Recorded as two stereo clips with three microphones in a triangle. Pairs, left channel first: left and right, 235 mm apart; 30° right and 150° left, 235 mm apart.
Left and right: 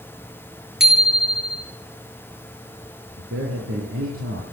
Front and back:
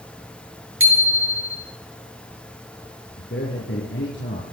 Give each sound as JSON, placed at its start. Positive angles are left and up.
{"t": 0.8, "sound": "a bicycle bell", "azimuth_deg": 180, "distance_m": 5.0}
{"t": 3.2, "sound": "a man speaking", "azimuth_deg": -70, "distance_m": 5.5}